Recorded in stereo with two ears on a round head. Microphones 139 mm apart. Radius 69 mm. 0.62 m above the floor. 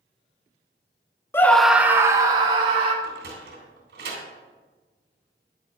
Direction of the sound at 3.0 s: 70° right (ahead or behind).